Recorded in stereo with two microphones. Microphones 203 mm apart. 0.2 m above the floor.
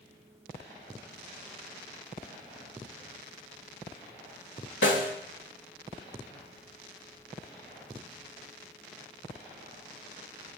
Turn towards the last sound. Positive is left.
turn(degrees=65)  # may be behind; listen again after turning